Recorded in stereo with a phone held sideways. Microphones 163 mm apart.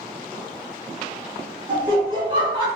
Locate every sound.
1.7 s laughter: 30° right (ahead or behind), 1.5 m